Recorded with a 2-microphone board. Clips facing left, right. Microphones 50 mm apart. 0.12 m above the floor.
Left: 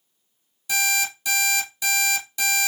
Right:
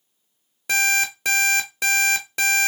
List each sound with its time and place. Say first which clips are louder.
0.7 s an alarm clock: right 4 dB; 55° right (ahead or behind), 0.9 m